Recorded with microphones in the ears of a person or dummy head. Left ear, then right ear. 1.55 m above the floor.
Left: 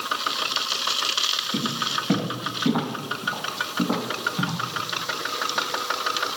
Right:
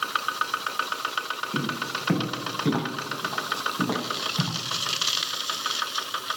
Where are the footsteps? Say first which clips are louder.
Left 3 dB; 35° right (ahead or behind), 7 m; by 4.6 s 50° right (ahead or behind), 7 m.